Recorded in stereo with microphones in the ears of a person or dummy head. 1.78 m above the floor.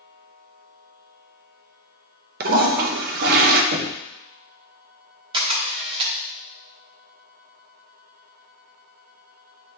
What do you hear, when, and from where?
2.4 s a toilet flushing: 50° right (ahead or behind), 0.8 m
3.7 s knocking: 70° right (ahead or behind), 1.2 m
5.3 s a camera shutter: 25° right (ahead or behind), 1.1 m